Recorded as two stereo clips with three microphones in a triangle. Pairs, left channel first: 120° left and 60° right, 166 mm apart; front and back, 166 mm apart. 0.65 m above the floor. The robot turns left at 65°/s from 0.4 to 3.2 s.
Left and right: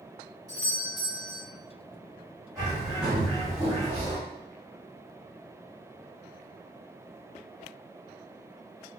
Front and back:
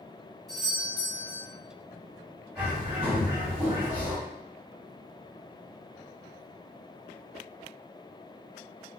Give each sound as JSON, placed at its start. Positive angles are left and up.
{"t": 0.5, "sound": "a doorbell", "azimuth_deg": -90, "distance_m": 1.7}
{"t": 2.5, "sound": "a bird", "azimuth_deg": -95, "distance_m": 1.7}